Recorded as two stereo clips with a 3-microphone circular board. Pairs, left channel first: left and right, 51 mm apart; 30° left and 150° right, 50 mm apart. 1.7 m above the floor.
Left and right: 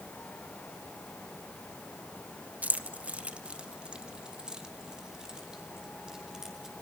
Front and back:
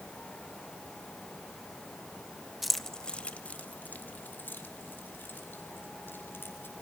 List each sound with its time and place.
2.6 s keys jangling: 65° right, 0.8 m; by 6.7 s 15° right, 5 m